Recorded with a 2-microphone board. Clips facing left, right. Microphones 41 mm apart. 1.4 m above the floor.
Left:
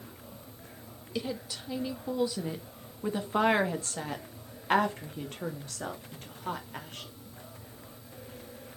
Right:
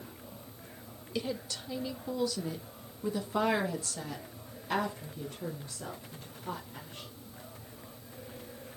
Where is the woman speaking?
5° left (ahead or behind), 2.5 m; by 7.1 s 70° left (ahead or behind), 3.5 m.